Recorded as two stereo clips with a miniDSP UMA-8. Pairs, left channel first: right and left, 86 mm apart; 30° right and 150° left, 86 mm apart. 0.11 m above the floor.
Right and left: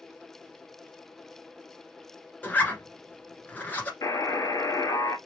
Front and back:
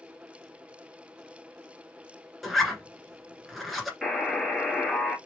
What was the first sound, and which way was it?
A zipper, 120° right.